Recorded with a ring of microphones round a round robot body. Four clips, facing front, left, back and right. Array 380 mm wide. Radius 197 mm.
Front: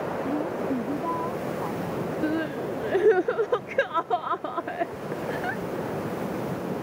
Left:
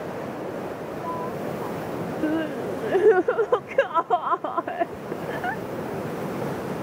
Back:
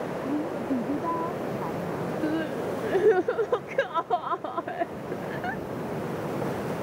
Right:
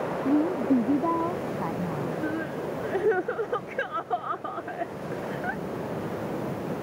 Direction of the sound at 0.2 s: 95° right.